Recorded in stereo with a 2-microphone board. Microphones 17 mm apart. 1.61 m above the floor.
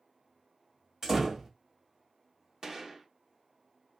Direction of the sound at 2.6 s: 40° right (ahead or behind).